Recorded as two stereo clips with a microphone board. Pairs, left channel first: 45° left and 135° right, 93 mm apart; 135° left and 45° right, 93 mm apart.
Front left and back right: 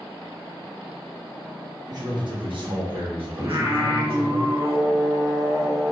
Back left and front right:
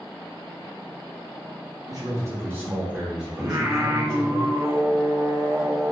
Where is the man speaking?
90° right, 1.1 m; by 4.4 s 140° right, 1.7 m.